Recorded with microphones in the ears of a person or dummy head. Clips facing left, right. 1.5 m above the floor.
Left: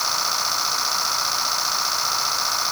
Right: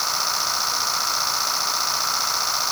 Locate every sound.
Only background noise.